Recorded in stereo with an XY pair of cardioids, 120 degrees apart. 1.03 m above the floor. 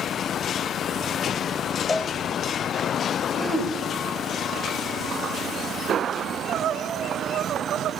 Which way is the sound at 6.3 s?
60° right.